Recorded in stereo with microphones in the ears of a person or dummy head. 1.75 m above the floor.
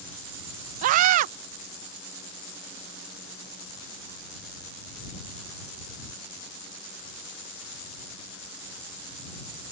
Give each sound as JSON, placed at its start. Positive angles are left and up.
{"t": 0.8, "sound": "a scream", "side_deg": -40}